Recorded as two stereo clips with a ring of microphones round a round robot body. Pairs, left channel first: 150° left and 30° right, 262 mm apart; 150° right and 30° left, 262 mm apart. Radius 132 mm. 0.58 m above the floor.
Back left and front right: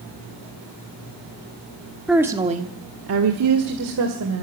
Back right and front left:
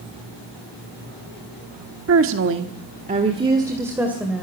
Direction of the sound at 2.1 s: 60° left.